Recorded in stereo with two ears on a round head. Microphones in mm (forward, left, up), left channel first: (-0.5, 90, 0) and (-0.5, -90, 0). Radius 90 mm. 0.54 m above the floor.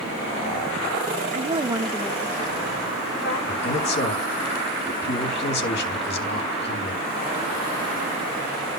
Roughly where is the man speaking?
Left.